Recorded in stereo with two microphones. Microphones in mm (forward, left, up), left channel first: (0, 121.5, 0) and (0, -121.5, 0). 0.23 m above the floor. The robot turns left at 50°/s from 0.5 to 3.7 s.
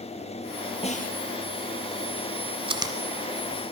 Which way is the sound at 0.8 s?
25° left (ahead or behind).